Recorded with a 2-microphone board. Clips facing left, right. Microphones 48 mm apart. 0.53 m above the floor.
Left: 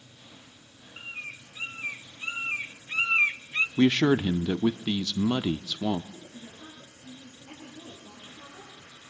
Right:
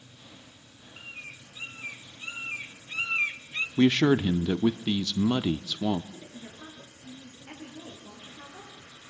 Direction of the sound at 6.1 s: 85° right.